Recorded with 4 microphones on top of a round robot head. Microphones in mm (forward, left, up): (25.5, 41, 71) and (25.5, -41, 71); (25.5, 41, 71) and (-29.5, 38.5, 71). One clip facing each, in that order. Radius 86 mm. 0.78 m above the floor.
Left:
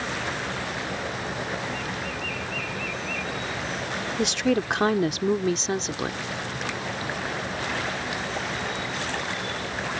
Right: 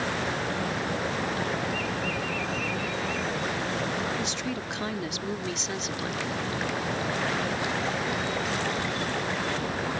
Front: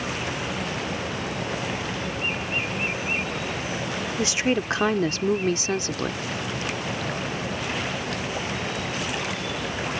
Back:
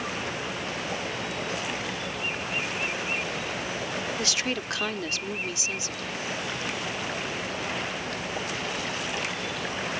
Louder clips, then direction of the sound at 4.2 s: Left 8 dB, front 6 dB; 70° left.